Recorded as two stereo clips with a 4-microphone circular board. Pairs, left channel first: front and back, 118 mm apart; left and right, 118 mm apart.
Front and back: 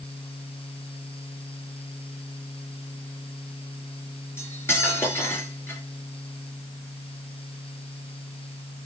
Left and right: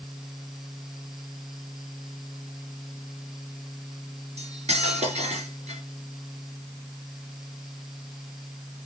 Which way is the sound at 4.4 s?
70° right.